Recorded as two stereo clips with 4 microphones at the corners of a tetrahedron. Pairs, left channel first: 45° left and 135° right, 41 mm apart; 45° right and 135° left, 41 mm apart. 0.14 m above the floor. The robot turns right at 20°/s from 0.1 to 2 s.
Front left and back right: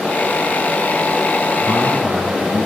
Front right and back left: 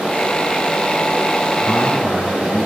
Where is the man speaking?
15° right, 3 m; by 2.7 s 10° right, 3 m.